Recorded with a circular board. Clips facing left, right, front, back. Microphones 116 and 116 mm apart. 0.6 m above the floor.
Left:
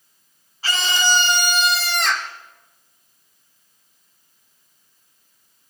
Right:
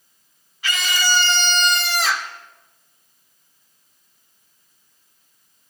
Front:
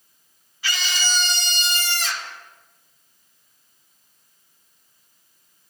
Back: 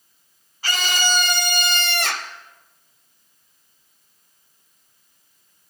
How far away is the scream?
About 1.5 m.